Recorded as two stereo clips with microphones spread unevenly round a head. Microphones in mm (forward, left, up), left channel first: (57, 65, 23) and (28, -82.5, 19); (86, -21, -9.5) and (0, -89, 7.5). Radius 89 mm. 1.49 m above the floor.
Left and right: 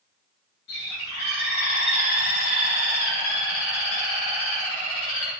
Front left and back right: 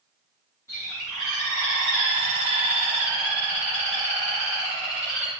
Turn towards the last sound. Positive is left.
turn(degrees=115)